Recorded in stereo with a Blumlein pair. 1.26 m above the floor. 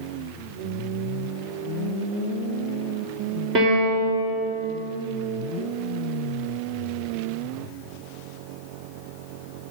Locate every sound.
3.5 s a piano: 30° right, 3.5 m